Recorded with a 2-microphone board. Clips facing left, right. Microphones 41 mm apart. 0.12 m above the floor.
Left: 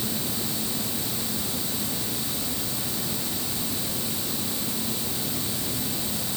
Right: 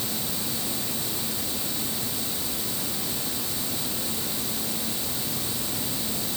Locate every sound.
Only background noise.